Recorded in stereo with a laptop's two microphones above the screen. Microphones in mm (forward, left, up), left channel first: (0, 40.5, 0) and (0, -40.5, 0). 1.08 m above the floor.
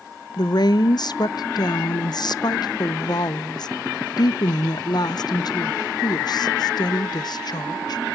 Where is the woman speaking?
55° left (ahead or behind), 0.5 m.